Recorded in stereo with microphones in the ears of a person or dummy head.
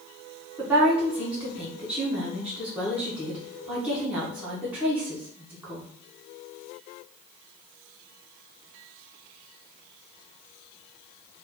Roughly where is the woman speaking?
Centre.